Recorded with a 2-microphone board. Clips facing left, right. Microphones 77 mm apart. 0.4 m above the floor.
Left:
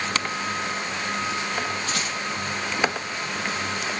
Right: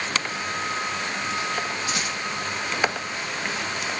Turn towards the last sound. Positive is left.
turn(degrees=-20)  # may be behind; listen again after turning